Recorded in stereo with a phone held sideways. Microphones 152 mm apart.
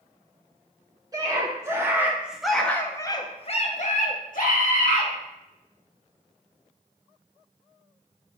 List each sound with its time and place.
1.1 s a scream: 25° right (ahead or behind), 1.3 m; by 5.1 s 70° left (ahead or behind), 1.2 m